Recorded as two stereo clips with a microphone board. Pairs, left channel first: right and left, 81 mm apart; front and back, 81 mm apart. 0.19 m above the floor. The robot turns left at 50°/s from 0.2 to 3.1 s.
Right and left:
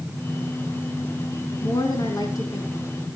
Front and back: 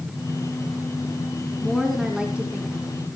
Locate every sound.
1.6 s a woman speaking: 75° right, 1.9 m; by 2.9 s 135° right, 1.9 m